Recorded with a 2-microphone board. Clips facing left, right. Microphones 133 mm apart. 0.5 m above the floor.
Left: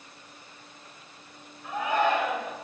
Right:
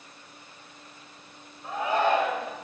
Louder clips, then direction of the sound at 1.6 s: Right 1 dB; 30° right (ahead or behind).